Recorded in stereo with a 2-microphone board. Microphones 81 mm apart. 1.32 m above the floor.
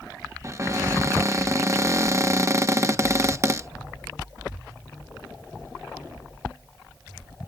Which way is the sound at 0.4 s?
35° right (ahead or behind).